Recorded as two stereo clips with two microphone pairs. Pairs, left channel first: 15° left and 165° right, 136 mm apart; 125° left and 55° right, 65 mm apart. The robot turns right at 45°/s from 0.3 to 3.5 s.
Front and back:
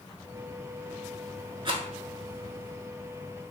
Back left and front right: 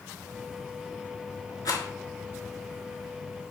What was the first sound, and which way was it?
A rattle, 145° left.